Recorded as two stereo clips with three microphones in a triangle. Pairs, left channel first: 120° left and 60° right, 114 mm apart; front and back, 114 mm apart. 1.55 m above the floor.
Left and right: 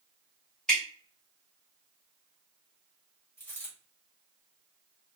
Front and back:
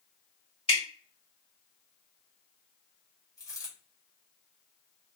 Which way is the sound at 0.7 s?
35° left.